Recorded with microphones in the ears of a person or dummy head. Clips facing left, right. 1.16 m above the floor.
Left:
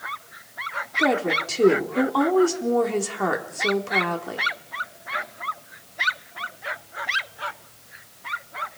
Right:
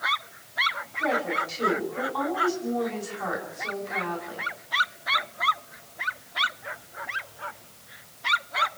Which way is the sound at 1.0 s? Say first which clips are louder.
Left 5 dB; 60° left (ahead or behind).